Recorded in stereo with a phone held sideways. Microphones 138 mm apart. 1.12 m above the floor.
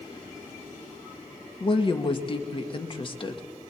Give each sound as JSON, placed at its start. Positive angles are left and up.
{"t": 1.6, "sound": "a woman speaking", "side_deg": 40, "distance_m": 1.4}